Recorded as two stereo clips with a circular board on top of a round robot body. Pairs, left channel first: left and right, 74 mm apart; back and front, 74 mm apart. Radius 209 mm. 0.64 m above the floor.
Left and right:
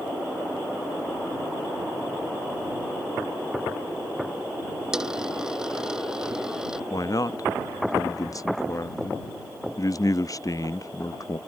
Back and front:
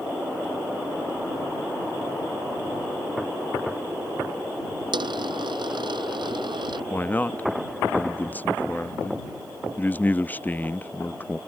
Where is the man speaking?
120° left.